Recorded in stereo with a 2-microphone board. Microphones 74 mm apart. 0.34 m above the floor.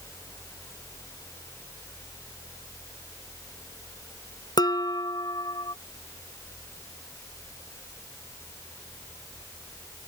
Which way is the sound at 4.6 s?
70° left (ahead or behind).